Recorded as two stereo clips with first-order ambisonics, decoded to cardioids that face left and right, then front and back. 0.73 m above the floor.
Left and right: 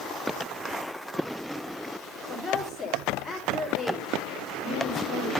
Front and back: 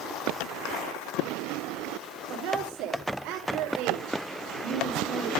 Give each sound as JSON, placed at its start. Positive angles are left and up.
{"t": 2.3, "sound": "a woman speaking", "azimuth_deg": 175, "distance_m": 2.0}